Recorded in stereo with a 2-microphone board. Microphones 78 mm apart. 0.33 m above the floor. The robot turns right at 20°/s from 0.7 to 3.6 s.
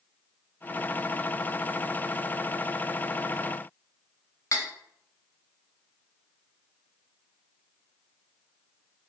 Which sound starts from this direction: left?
Cutlery clinking, at 4.5 s.